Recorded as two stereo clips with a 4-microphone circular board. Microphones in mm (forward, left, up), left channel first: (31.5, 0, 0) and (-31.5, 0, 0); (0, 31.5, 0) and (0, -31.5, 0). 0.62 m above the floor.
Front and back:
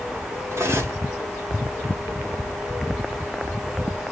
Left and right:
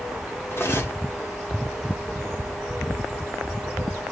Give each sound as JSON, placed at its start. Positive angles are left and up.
{"t": 0.5, "sound": "cutlery clinking", "azimuth_deg": 140, "distance_m": 1.0}